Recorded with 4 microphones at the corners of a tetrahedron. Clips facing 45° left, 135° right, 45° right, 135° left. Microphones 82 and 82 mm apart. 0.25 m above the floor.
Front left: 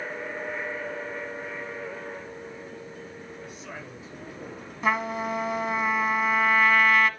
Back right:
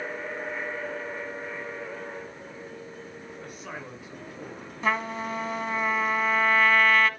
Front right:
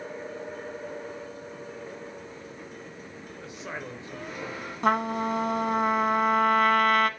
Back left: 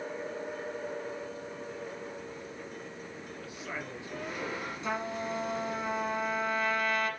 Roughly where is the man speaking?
Right.